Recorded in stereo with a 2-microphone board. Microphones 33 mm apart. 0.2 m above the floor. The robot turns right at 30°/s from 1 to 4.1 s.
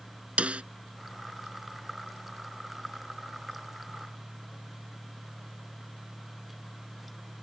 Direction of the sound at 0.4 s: 40° right (ahead or behind).